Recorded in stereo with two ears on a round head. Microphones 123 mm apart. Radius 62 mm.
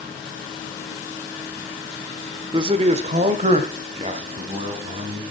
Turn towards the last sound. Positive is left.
turn(degrees=-45)  # may be behind; listen again after turning